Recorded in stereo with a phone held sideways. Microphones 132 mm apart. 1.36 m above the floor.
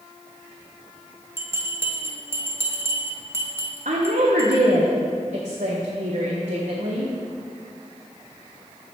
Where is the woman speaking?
70° right (ahead or behind), 1.0 m.